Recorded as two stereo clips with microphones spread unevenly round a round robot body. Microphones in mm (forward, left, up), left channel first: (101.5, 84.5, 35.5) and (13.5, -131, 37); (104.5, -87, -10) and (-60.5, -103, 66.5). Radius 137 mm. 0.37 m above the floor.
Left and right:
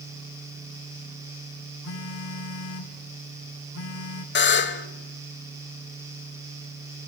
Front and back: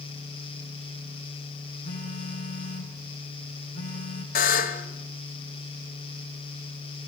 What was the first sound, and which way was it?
A phone buzzing, 45° left.